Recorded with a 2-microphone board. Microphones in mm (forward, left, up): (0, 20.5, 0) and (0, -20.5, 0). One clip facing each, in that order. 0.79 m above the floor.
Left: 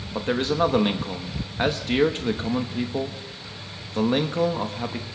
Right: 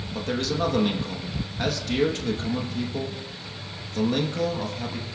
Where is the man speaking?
30° left (ahead or behind), 1.0 m.